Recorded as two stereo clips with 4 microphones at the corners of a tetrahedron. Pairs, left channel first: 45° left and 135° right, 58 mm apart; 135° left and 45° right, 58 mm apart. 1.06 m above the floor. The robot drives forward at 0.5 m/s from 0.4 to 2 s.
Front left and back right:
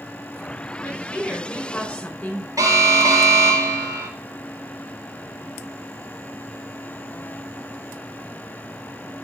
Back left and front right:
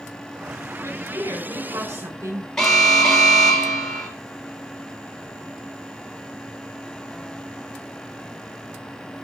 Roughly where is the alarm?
Behind right.